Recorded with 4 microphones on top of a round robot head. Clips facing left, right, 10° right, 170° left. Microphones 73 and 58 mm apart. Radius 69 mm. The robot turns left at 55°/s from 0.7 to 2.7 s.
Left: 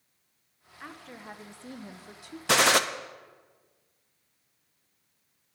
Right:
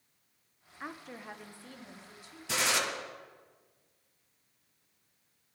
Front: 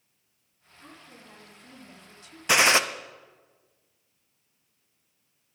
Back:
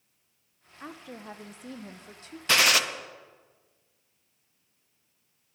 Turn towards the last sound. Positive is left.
turn(degrees=50)